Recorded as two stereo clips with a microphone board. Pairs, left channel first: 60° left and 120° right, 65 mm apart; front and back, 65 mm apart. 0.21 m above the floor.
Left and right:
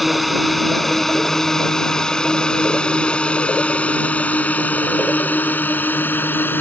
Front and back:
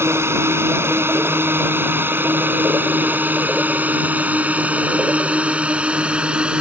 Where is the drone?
150° left; by 6.6 s 110° left.